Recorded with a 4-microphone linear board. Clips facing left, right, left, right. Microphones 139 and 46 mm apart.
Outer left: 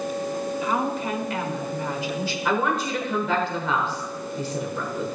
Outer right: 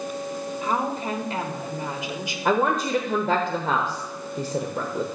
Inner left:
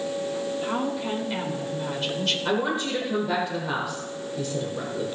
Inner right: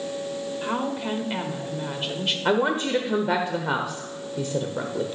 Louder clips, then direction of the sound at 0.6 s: Outer right 1 dB, inner right 3 dB; 40° right (ahead or behind).